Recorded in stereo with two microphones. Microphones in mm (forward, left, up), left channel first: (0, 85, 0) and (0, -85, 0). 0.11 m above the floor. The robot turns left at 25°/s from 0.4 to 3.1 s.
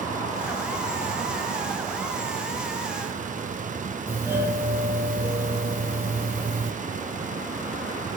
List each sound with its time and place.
4.1 s a doorbell: 10° right (ahead or behind), 2.5 m